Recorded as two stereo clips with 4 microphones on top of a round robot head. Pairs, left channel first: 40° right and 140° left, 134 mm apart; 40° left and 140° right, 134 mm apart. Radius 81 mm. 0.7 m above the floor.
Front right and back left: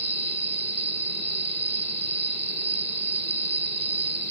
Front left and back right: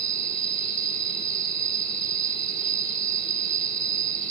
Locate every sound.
0.0 s an insect: 175° right